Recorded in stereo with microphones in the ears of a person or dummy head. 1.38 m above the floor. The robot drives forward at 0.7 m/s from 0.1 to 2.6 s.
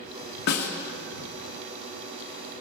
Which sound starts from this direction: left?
A snare drum, at 0.5 s.